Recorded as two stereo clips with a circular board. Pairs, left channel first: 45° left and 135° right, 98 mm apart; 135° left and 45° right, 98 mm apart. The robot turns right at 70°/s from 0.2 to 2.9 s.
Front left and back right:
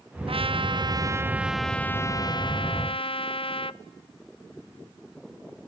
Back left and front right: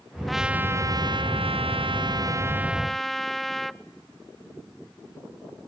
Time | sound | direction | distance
0.3 | a trumpet | 135° right | 0.5 m